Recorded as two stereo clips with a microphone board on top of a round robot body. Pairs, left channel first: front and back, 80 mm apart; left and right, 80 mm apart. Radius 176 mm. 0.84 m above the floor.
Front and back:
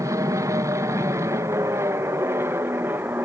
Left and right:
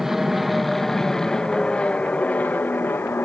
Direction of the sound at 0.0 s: 175° right.